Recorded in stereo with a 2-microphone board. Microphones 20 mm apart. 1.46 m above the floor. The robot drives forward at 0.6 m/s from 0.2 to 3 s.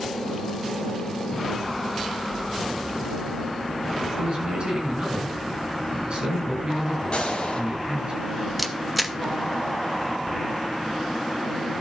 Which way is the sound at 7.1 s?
50° left (ahead or behind).